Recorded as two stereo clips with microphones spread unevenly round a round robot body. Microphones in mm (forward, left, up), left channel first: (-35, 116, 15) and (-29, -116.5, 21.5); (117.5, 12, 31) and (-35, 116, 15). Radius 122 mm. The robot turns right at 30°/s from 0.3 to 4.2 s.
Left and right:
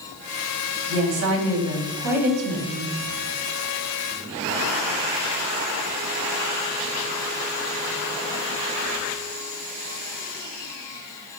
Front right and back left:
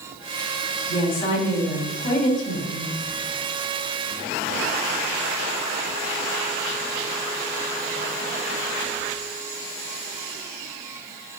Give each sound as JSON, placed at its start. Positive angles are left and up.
{"t": 0.9, "sound": "a woman speaking", "azimuth_deg": -110, "distance_m": 3.5}